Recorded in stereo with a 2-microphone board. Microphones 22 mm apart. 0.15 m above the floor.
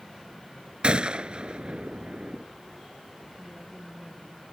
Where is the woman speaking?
10° right (ahead or behind).